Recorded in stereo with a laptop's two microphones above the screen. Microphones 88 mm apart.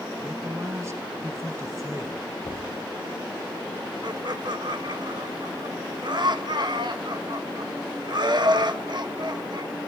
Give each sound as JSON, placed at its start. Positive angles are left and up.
{"t": 0.2, "sound": "a man speaking", "side_deg": -30, "distance_m": 1.2}
{"t": 2.4, "sound": "knocking", "side_deg": 50, "distance_m": 1.9}
{"t": 4.0, "sound": "laughter", "side_deg": -55, "distance_m": 1.4}